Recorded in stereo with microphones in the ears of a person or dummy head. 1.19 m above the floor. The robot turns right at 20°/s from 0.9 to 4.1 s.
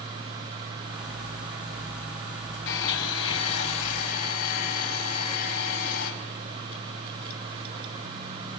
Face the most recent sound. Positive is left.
turn(degrees=85)